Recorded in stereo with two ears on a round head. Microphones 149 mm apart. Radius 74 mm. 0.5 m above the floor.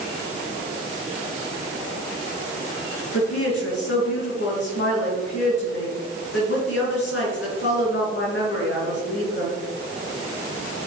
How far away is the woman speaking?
About 6 m.